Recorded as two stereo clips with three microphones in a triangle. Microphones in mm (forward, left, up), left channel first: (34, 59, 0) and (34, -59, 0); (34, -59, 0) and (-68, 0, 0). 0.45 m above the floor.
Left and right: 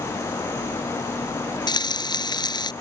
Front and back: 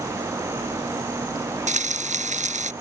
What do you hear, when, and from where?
1.7 s frying: 145° left